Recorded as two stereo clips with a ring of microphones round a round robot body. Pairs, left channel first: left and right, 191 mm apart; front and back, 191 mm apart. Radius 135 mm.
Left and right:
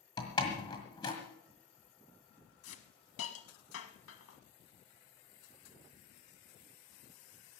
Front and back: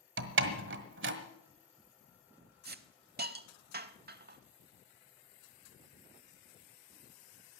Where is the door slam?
165° left, 1.5 m.